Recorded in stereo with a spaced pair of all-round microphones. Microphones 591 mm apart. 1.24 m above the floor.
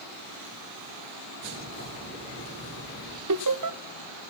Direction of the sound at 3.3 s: 35° right (ahead or behind).